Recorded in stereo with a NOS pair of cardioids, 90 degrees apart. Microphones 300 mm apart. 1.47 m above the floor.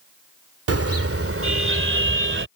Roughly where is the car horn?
Ahead right.